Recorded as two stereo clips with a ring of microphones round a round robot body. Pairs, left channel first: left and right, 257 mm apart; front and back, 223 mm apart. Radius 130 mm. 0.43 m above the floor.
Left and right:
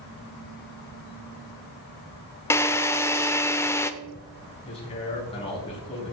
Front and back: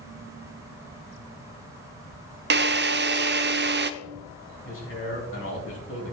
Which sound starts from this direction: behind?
A drill, at 2.5 s.